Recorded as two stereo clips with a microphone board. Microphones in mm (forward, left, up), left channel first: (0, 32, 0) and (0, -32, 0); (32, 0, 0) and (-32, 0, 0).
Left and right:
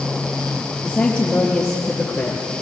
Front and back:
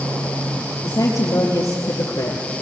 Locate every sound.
0.8 s a woman speaking: 20° left, 4.5 m; by 2.6 s 10° left, 4.5 m